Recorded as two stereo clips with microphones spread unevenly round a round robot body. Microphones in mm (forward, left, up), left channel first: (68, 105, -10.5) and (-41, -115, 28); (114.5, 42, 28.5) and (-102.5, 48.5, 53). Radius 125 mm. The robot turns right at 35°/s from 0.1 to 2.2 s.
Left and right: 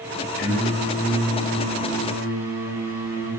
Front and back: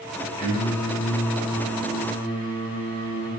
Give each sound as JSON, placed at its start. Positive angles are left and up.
{"t": 0.4, "sound": "singing", "azimuth_deg": 45, "distance_m": 1.6}